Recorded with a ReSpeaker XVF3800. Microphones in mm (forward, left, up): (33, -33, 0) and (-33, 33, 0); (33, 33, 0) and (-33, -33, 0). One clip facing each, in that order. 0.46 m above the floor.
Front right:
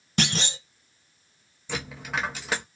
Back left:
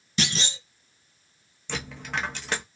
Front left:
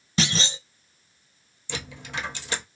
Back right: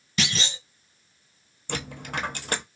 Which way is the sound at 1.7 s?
130° right.